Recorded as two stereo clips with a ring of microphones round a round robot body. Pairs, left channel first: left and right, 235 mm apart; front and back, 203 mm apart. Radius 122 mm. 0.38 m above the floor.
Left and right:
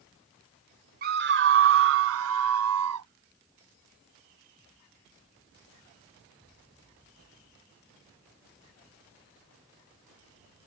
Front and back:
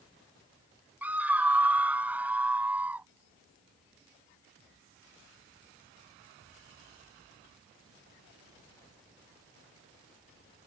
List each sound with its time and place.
1.0 s a scream: 100° right; by 3.1 s 95° right